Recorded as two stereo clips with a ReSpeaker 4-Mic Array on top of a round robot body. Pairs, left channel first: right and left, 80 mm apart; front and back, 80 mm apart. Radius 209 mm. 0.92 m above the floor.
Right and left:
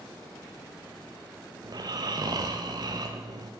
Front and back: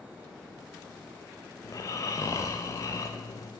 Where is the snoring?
50° left, 0.5 m.